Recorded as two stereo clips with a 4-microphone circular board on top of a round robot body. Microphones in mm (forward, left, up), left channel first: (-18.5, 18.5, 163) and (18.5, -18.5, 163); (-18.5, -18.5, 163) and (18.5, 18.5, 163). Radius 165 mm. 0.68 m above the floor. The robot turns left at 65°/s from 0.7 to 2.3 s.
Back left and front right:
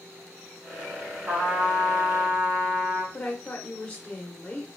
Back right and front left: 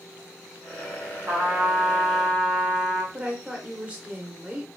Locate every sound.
1.3 s a trumpet: 10° left, 1.0 m; by 3.0 s 55° right, 1.0 m
3.1 s a woman speaking: 95° left, 0.9 m